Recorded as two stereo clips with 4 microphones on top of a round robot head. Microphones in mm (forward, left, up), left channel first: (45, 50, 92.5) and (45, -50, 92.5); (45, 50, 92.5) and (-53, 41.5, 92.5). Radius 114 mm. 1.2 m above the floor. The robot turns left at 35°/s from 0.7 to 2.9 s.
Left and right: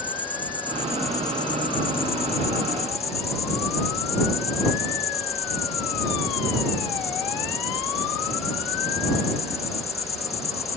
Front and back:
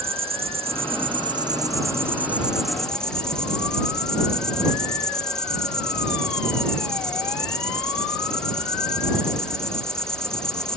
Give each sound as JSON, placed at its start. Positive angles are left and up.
{"t": 0.0, "sound": "an insect", "azimuth_deg": 165}